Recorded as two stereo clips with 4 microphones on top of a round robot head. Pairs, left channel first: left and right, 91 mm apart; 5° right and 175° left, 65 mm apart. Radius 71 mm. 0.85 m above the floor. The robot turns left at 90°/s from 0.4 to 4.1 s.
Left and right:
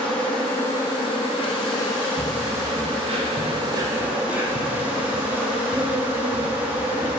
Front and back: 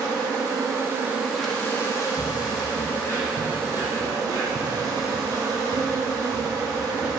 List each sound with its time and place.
0.0 s an insect: 170° left, 1.4 m; by 7.2 s 165° right, 1.4 m
2.2 s footsteps: 50° left, 1.2 m; by 7.1 s 90° left, 3 m